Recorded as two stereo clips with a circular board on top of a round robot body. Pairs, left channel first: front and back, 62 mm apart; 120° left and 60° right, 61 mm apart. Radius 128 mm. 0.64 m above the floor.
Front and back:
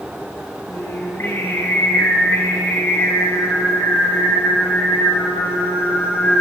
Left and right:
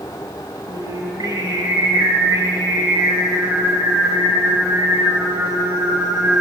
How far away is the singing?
About 9.5 m.